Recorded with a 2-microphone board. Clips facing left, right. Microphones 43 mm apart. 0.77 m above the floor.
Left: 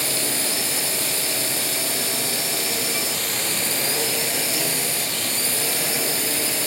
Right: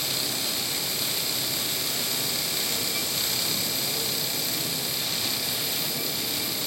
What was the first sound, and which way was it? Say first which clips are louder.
A drone: left 5 dB; 85° left.